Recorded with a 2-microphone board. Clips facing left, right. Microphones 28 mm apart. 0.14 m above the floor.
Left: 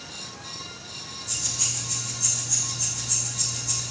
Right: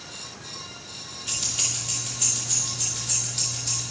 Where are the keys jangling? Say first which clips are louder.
Right 2 dB; 65° right (ahead or behind), 2.5 m; by 3.8 s 75° right (ahead or behind), 4 m.